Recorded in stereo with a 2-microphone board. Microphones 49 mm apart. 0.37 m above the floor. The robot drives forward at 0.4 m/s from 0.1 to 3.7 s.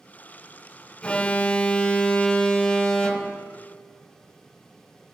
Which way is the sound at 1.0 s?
25° left (ahead or behind).